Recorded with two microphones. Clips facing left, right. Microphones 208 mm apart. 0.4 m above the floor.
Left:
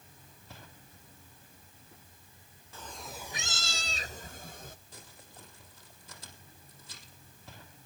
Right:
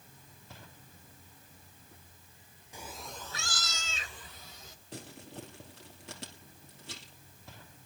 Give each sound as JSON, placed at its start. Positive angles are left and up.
{"t": 2.7, "sound": "a cat meowing", "side_deg": -15, "distance_m": 0.6}
{"t": 4.9, "sound": "crumpling", "side_deg": -85, "distance_m": 2.5}